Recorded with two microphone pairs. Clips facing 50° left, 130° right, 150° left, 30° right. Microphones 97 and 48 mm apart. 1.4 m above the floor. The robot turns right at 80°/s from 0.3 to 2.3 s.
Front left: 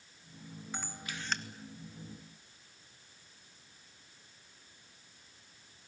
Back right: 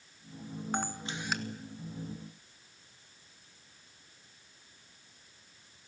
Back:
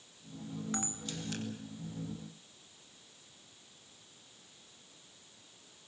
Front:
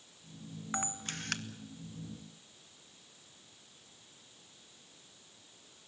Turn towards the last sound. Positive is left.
turn(degrees=30)